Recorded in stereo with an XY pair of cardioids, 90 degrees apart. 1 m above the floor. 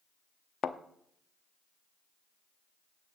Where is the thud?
55° left, 0.7 m.